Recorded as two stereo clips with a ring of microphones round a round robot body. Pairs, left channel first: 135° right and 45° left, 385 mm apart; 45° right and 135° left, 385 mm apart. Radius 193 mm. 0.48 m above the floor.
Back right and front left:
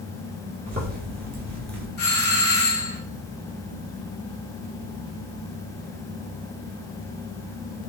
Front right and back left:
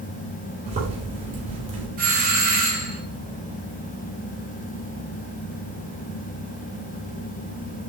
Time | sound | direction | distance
0.7 | a zipper | 80° left | 1.5 m
2.0 | a doorbell | 175° right | 1.4 m